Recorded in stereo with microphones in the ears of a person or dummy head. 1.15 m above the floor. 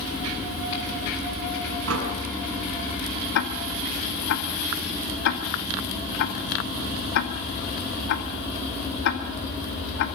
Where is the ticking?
60° left (ahead or behind), 2 m.